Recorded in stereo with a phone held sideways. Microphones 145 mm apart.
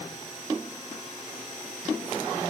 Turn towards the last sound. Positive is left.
No sound to turn to.